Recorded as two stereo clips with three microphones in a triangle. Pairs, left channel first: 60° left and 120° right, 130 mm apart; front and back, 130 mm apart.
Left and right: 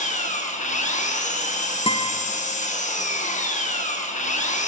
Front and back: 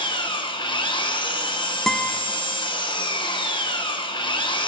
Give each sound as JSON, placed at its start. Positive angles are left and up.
{"t": 0.0, "sound": "an engine running", "azimuth_deg": 50, "distance_m": 1.3}
{"t": 1.9, "sound": "a guitar", "azimuth_deg": 85, "distance_m": 0.7}